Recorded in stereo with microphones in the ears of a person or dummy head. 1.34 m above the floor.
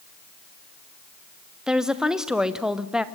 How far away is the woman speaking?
About 1.0 m.